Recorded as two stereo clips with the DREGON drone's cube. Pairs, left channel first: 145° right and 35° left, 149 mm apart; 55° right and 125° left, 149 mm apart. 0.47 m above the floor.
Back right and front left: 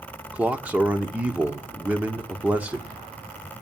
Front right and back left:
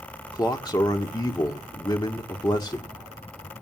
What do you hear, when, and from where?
0.3 s a man speaking: 35° right, 1.4 m